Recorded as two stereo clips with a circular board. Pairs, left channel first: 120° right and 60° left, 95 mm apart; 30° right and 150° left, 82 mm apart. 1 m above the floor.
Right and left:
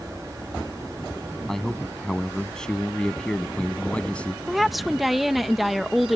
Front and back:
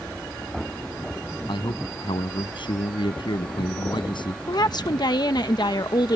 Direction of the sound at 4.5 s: 30° right.